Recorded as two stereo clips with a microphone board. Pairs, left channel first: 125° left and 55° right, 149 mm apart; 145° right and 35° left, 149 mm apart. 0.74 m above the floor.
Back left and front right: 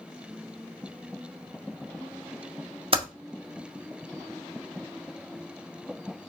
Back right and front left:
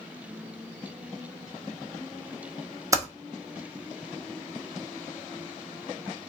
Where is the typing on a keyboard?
25° right, 0.9 m.